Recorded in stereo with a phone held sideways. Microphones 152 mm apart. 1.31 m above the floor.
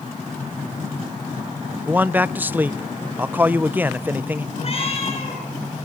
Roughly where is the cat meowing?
Left.